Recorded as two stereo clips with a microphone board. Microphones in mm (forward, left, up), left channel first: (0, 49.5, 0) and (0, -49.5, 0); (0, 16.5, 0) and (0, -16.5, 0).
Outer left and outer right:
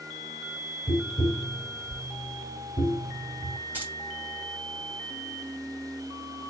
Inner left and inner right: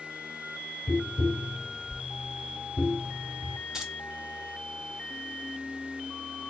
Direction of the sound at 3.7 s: 20° right (ahead or behind).